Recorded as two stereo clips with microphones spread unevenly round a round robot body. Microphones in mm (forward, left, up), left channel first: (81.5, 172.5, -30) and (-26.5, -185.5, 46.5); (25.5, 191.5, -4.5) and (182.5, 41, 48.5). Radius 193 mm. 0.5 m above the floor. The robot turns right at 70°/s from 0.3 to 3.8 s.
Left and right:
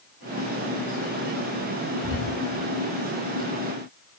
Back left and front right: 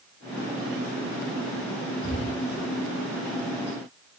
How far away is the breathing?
About 2.5 m.